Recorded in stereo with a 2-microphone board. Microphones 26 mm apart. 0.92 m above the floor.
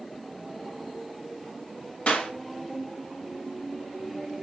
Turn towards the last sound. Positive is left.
turn(degrees=50)  # may be behind; listen again after turning